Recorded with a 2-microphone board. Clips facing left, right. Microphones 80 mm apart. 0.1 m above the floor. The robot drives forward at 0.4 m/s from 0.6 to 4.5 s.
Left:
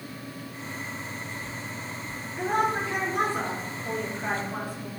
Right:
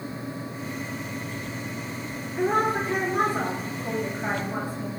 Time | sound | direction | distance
2.4 | a woman speaking | 25° right (ahead or behind) | 1.8 m